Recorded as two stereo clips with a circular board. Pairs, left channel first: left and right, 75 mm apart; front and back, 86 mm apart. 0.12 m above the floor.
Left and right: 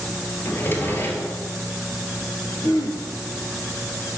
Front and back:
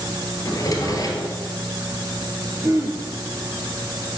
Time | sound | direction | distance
0.5 | a drawer | 35° left | 1.3 m
2.6 | throat clearing | 125° left | 1.3 m